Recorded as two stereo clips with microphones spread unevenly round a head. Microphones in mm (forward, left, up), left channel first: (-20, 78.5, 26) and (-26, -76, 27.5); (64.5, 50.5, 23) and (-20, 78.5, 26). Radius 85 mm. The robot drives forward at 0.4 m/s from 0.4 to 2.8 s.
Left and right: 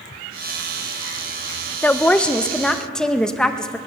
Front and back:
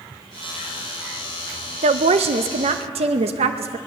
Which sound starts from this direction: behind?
A woman speaking, at 1.8 s.